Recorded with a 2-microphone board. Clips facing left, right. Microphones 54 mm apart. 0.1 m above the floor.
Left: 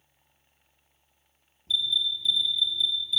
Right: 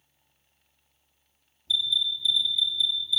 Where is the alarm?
45° left (ahead or behind), 2.5 m.